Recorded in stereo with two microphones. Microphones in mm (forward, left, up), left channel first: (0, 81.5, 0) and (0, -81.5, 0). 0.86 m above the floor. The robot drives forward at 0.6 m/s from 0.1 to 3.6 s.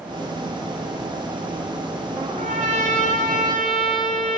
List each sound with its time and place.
2.2 s a trumpet: 40° right (ahead or behind), 1.9 m; by 4.4 s 55° right (ahead or behind), 1.6 m